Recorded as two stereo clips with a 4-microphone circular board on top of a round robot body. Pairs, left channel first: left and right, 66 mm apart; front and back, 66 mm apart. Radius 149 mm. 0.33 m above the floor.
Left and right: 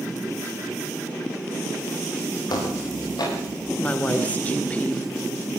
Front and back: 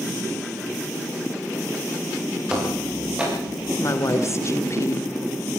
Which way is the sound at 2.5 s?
105° left.